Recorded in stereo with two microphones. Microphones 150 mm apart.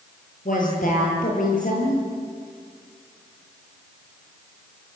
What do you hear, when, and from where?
0.5 s a woman speaking: 60° left (ahead or behind), 10 m